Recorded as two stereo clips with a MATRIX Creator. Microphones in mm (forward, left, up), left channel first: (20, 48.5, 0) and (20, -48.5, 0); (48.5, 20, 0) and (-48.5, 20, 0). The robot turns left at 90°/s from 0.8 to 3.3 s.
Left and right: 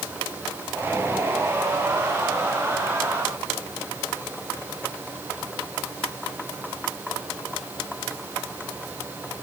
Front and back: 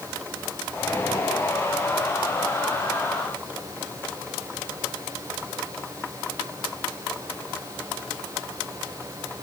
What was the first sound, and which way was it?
Only background noise.